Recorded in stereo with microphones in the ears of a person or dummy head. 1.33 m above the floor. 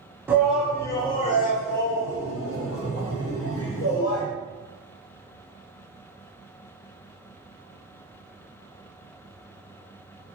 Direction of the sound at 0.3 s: 10° right (ahead or behind).